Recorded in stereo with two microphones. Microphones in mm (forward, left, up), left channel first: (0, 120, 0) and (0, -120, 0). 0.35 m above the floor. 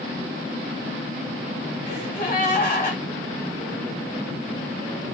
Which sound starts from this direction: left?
A gasp, at 1.9 s.